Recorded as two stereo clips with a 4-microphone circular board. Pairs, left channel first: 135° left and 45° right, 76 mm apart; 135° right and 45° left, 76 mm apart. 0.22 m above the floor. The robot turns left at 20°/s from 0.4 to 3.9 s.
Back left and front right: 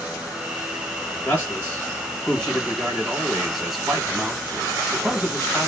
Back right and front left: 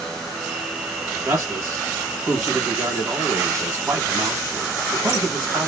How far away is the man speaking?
About 1.0 m.